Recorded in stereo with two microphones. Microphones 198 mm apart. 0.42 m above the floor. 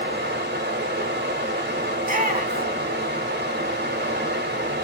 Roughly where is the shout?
Right.